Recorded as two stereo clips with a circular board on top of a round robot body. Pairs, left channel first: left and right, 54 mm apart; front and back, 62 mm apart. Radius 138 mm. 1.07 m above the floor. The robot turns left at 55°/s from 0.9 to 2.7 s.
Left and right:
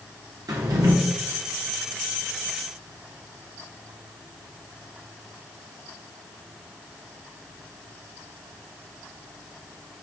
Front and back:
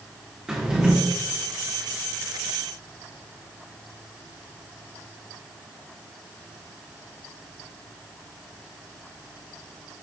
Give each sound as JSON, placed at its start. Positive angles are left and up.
{"t": 0.5, "sound": "a drawer", "azimuth_deg": -105, "distance_m": 1.0}